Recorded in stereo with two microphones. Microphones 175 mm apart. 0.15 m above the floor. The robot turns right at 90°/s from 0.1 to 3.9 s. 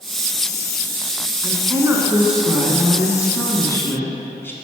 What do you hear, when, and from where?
1.4 s a woman speaking: 20° right (ahead or behind), 1.0 m; by 4.5 s 15° left (ahead or behind), 1.0 m